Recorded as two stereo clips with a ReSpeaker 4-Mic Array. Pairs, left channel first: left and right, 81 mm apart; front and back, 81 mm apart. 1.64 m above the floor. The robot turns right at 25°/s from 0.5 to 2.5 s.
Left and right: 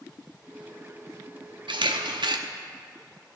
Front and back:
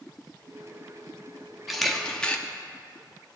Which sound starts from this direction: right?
A camera shutter, at 1.7 s.